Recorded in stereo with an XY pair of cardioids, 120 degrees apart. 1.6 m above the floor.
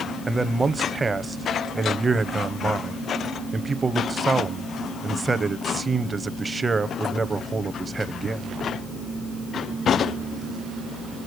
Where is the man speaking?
20° right, 0.8 m.